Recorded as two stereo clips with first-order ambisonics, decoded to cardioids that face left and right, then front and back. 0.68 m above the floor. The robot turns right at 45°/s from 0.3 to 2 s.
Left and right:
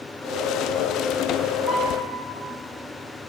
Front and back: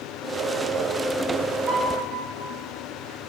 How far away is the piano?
About 1.8 m.